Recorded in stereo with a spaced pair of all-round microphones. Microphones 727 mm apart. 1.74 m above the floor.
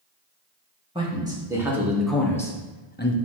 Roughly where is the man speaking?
Centre.